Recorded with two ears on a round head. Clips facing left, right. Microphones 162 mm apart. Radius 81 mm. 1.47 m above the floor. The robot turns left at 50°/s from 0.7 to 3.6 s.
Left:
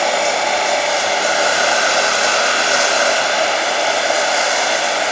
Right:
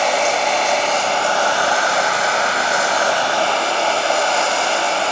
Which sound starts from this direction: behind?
Running water, at 0.0 s.